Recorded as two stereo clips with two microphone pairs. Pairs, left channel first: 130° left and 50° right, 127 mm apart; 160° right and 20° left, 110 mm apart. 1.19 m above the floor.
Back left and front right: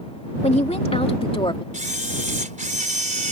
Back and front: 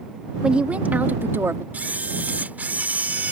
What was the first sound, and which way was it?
A woman speaking, 100° left.